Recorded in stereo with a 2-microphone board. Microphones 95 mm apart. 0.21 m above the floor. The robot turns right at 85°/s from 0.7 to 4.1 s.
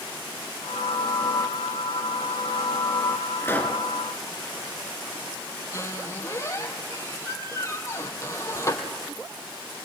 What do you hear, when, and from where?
3.4 s a pop: 145° left, 3 m; by 3.8 s straight behind, 3 m
5.7 s a squeak: 30° left (ahead or behind), 3.5 m